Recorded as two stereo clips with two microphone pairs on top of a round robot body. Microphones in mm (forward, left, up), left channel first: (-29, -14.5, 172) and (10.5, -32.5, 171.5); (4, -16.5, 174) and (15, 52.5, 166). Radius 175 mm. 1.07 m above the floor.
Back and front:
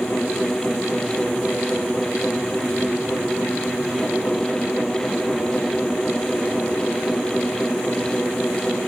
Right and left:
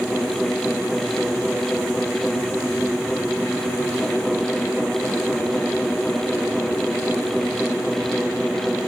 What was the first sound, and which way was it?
Only background noise.